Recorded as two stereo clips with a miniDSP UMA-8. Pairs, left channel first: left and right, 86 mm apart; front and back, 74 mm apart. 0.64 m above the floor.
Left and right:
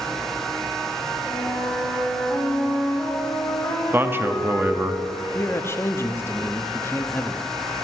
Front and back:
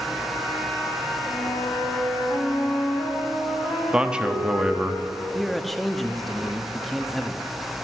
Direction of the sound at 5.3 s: 90° left.